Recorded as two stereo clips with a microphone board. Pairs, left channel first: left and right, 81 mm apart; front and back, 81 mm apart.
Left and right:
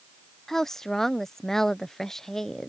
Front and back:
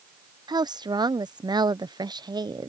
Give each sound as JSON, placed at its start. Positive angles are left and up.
{"t": 0.5, "sound": "a woman speaking", "azimuth_deg": 175}